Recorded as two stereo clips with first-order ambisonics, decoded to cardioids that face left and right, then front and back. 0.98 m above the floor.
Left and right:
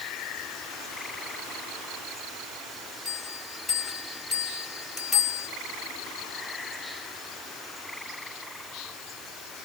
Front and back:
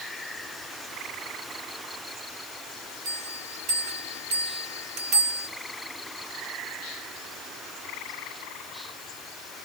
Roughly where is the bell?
Behind.